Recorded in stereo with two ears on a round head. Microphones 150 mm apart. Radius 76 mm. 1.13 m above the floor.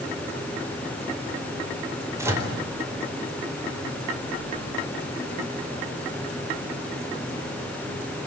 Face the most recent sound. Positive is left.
turn(degrees=-15)  # may be behind; listen again after turning